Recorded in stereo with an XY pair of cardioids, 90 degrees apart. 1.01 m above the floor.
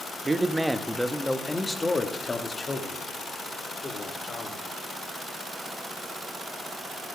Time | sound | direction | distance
0.2 | a man speaking | 25° right | 0.9 m